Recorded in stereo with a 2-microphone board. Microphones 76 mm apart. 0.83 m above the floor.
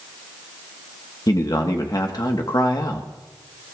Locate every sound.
1.3 s a man speaking: 60° left (ahead or behind), 1.3 m